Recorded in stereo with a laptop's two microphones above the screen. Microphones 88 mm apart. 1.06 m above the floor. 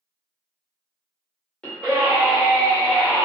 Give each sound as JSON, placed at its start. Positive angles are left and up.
{"t": 1.6, "sound": "a scream", "side_deg": 15, "distance_m": 1.9}